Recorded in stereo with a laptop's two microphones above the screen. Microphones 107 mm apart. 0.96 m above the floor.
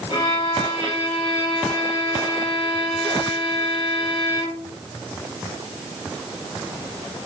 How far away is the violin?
About 3.5 m.